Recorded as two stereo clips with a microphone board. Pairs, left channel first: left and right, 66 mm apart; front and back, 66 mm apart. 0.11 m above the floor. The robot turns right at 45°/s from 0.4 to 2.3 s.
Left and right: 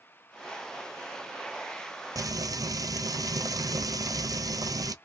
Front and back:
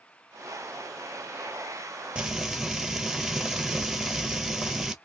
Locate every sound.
2.1 s frying: 105° right, 0.6 m; by 5.0 s 100° right, 0.6 m